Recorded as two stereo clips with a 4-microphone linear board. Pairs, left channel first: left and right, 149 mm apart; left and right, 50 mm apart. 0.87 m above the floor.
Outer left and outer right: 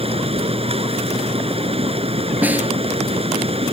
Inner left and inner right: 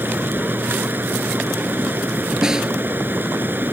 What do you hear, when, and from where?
0.0 s running water: 40° right (ahead or behind)
2.4 s a snare drum: 10° right (ahead or behind)